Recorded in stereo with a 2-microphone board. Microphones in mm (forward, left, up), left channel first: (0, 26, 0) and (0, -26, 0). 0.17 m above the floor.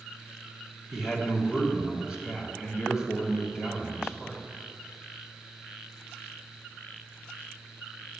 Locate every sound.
0.9 s a man speaking: 20° right (ahead or behind), 1.8 m